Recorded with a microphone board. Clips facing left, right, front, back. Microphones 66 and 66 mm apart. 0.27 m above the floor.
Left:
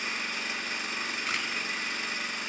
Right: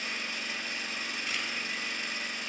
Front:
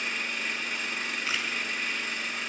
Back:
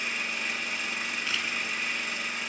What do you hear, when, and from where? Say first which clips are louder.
0.0 s an engine running: left 3 dB, even; 95° left, 1.9 m
1.3 s a camera shutter: left 3 dB, front 1 dB; 70° left, 1.6 m